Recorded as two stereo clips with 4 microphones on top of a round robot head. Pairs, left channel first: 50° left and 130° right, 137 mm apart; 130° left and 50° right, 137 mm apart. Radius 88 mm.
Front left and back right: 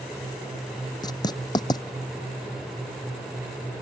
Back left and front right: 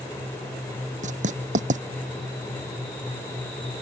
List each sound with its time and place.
1.0 s writing: 15° right